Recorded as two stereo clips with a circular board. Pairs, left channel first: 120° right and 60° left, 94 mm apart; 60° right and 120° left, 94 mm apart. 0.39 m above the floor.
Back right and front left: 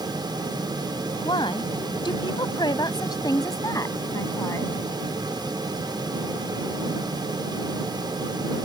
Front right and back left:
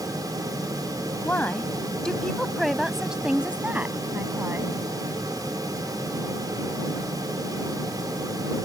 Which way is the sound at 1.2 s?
125° right.